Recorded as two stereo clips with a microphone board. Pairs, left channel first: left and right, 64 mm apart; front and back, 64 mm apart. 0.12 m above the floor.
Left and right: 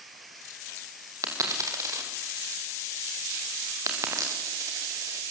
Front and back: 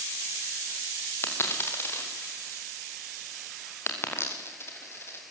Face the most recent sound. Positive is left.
turn(degrees=-55)